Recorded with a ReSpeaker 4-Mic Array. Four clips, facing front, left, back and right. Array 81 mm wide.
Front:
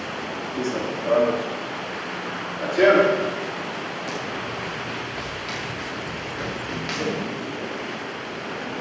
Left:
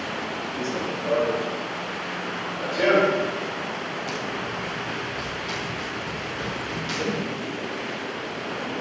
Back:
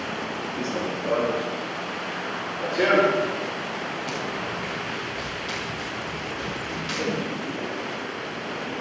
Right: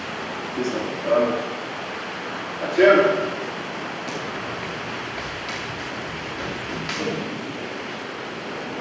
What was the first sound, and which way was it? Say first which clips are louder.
Running footsteps: right 4 dB, front 3 dB; 40° right.